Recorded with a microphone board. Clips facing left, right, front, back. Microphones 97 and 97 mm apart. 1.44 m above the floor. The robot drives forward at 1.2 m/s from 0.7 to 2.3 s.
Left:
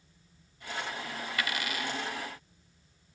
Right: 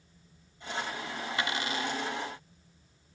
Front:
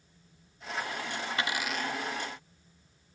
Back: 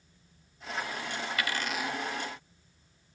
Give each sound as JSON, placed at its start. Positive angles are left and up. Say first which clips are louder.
{"t": 1.4, "sound": "a dropped coin", "louder": "right 2 dB, even", "azimuth_deg": -45, "distance_m": 0.9}